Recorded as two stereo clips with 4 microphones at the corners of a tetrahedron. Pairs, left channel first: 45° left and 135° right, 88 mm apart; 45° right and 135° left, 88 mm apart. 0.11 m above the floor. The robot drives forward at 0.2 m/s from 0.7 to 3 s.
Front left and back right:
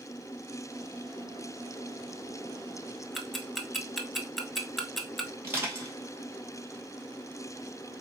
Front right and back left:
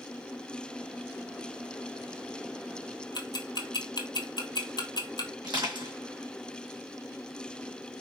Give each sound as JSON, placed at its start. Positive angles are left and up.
{"t": 3.1, "sound": "ticking", "azimuth_deg": -45, "distance_m": 0.6}
{"t": 5.4, "sound": "crushing", "azimuth_deg": 165, "distance_m": 2.0}